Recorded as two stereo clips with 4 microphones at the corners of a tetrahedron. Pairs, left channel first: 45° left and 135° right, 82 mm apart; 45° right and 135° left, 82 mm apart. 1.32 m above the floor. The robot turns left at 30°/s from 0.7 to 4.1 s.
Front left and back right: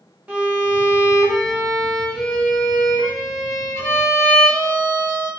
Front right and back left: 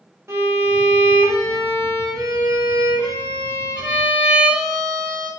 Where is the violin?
160° left, 1.1 m; by 5.3 s 60° left, 1.1 m.